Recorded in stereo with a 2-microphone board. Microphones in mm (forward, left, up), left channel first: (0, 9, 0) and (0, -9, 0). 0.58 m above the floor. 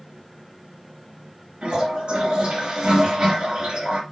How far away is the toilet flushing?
About 2.5 m.